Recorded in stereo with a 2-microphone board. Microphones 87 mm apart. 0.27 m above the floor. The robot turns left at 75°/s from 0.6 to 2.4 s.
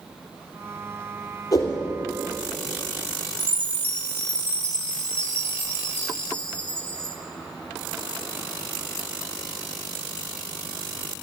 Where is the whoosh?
45° left (ahead or behind), 2.5 m; by 1.8 s 25° left (ahead or behind), 2.5 m.